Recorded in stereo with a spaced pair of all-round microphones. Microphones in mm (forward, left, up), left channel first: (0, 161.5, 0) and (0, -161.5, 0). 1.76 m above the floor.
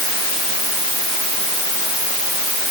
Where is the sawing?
I don't hear sawing.